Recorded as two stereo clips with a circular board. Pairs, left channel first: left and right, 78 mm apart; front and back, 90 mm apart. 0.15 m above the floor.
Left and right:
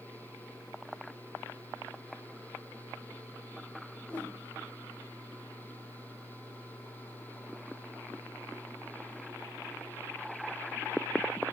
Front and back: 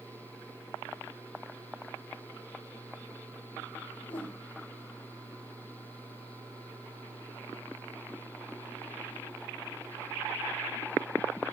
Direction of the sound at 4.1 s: 15° left.